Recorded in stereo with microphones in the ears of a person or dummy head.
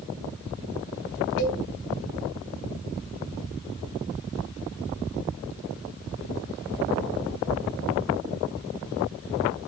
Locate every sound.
1.4 s a cowbell: 60° left (ahead or behind), 3 m